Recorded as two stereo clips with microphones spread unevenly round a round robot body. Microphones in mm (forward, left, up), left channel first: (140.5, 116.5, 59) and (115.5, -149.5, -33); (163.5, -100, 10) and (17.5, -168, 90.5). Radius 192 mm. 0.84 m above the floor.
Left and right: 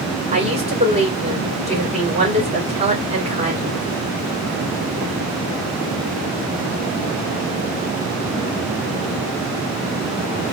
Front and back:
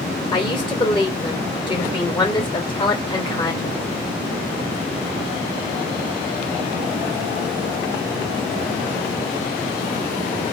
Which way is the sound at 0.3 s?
30° right.